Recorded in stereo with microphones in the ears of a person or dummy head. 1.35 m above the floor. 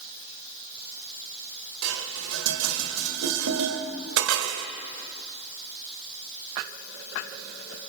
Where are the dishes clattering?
80° right, 2 m.